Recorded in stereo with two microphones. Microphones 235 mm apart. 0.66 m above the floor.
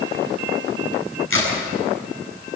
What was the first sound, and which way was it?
A crack, 65° left (ahead or behind).